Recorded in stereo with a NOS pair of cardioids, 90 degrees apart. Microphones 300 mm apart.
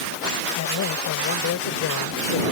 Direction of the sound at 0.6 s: 65° left.